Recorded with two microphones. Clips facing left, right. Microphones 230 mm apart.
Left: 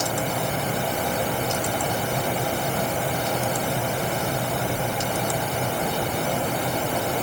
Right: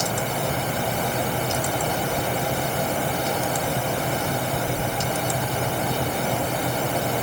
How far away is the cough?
I don't hear a cough.